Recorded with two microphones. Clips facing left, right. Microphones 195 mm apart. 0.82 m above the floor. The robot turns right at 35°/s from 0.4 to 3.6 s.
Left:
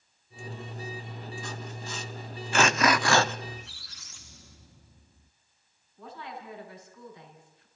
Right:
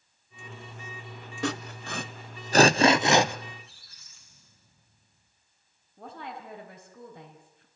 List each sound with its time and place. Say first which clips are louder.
1.4 s sawing: right 7 dB; 75° right (ahead or behind), 0.7 m; by 3.4 s 10° right (ahead or behind), 0.7 m
3.5 s a squeak: left 5 dB; 85° left, 1.1 m
6.0 s a woman speaking: right 1 dB; 55° right (ahead or behind), 6 m